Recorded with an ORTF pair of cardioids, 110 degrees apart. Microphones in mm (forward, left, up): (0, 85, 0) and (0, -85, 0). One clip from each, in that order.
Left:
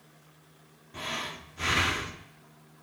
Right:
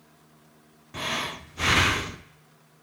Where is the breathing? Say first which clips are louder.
Right 5 dB; 30° right, 0.6 m.